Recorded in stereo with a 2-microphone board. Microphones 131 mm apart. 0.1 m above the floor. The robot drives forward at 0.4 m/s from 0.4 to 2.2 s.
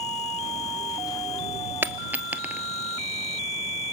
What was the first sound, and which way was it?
A dropped coin, 15° right (ahead or behind).